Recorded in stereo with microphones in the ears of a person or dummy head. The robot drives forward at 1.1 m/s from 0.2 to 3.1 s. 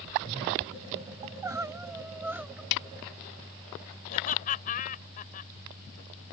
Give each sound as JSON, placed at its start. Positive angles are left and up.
{"t": 1.2, "sound": "crying", "side_deg": -15}
{"t": 2.7, "sound": "a snare drum", "side_deg": 60}
{"t": 4.1, "sound": "laughter", "side_deg": 40}